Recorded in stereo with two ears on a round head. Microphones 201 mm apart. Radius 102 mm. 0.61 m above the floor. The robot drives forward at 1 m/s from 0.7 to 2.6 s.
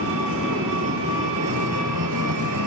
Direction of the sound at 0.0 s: 60° right (ahead or behind).